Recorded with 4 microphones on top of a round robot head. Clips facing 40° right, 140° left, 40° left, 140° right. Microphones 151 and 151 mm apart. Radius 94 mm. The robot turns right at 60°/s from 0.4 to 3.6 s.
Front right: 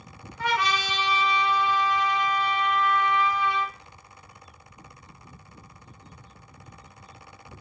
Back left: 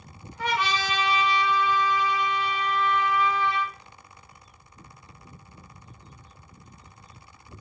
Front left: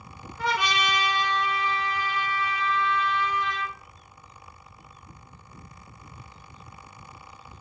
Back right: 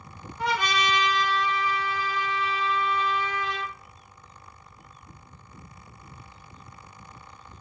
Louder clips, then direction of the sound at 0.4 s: Front right 1 dB, even; 60° left.